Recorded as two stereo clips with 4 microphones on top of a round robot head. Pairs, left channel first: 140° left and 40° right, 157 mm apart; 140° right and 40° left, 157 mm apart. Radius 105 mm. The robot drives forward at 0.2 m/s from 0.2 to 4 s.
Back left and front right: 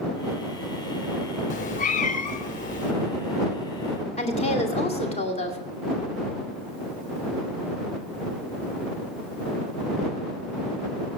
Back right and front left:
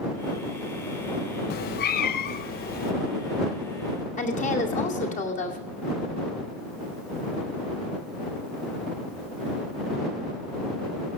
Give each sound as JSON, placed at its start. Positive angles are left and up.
{"t": 1.5, "sound": "a cat meowing", "azimuth_deg": -175, "distance_m": 0.5}
{"t": 4.2, "sound": "a woman speaking", "azimuth_deg": -175, "distance_m": 2.5}